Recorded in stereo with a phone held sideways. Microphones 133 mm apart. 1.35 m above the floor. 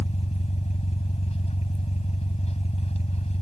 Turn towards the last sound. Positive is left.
turn(degrees=50)  # may be behind; listen again after turning